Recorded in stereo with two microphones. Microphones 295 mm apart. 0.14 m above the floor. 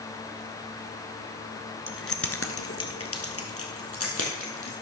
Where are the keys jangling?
45° left (ahead or behind), 1.0 m; by 4.7 s 50° left (ahead or behind), 3.5 m.